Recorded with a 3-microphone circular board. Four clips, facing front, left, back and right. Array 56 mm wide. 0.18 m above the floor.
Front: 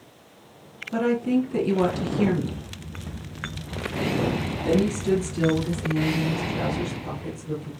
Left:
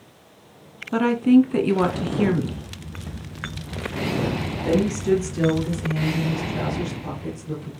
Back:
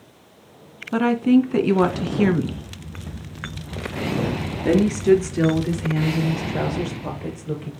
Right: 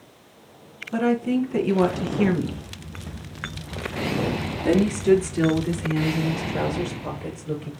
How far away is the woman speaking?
About 1.8 m.